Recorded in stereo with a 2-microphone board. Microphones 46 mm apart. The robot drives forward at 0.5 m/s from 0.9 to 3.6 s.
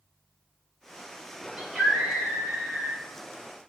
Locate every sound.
1.6 s a scream: 25° right (ahead or behind), 3 m; by 3.0 s 35° right (ahead or behind), 2.5 m